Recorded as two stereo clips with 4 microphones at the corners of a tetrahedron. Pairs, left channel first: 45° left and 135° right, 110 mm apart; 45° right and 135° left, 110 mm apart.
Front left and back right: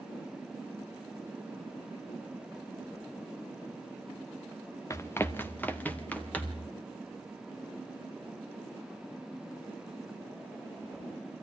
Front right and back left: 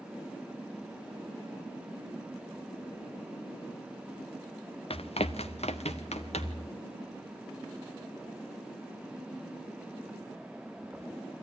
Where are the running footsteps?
20° right, 0.9 m; by 6.7 s 35° right, 3 m.